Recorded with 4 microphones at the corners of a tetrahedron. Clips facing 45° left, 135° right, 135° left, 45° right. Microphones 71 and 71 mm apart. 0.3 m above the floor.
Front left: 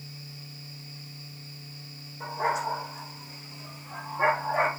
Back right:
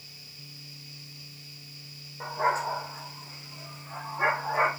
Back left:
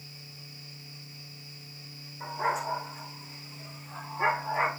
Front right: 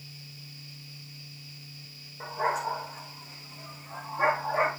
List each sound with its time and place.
2.2 s a dog barking: 85° right, 6 m; by 4.7 s 60° right, 7.5 m